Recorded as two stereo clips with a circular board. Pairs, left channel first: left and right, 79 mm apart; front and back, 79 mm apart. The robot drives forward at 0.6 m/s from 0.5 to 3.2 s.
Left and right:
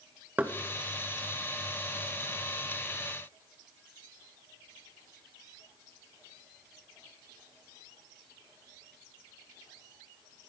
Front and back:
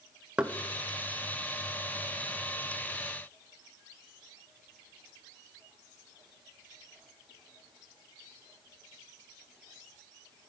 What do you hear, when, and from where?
0.4 s knocking: 130° right, 0.5 m